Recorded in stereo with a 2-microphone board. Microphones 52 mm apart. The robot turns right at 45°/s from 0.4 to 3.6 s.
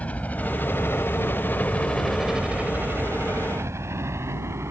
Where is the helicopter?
30° left (ahead or behind); by 4.7 s 55° right (ahead or behind).